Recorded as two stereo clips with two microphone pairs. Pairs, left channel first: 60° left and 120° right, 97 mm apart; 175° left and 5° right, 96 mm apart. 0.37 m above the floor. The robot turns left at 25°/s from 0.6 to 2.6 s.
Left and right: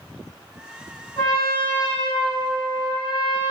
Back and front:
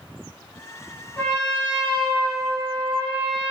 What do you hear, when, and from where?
1.2 s a trumpet: 110° left, 2.0 m; by 3.5 s 75° left, 2.0 m